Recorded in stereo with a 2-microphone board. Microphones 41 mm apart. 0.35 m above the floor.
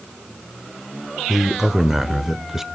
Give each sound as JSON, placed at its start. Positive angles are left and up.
{"t": 1.3, "sound": "a man speaking", "side_deg": -10, "distance_m": 0.9}